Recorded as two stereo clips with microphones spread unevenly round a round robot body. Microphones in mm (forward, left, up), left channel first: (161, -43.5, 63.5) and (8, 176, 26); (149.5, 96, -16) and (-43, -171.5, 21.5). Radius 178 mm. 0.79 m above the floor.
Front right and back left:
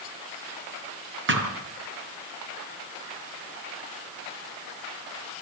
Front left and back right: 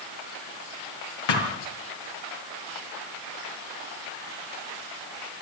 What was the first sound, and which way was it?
A thud, 80° left.